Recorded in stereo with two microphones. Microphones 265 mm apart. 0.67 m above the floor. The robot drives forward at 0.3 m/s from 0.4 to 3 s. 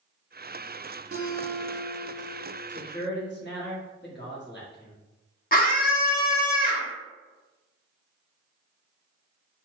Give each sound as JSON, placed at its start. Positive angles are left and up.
{"t": 1.1, "sound": "a guitar", "side_deg": -60, "distance_m": 0.5}
{"t": 2.7, "sound": "a man speaking", "side_deg": 40, "distance_m": 1.0}
{"t": 5.5, "sound": "a scream", "side_deg": 35, "distance_m": 0.7}